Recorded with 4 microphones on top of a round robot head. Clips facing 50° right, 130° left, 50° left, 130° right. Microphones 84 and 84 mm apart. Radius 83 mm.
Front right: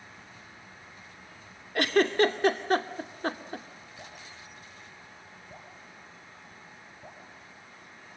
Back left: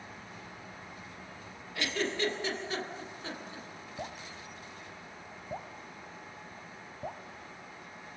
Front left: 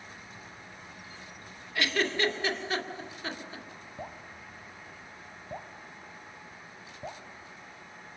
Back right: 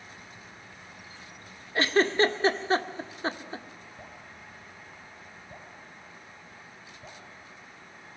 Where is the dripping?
110° left, 2 m.